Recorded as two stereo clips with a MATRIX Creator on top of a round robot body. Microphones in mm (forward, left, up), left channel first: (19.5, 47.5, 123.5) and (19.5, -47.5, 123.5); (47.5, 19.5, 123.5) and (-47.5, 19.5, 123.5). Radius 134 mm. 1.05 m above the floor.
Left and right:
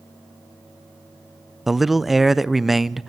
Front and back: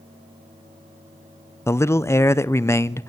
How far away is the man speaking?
About 0.7 m.